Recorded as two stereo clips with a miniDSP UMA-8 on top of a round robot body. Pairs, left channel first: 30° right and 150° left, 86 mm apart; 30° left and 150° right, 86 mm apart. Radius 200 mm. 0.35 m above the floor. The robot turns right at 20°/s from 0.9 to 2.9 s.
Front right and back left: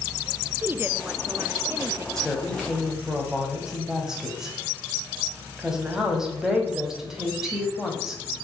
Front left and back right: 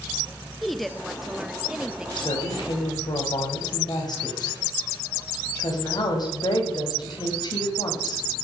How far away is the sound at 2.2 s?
About 4.5 m.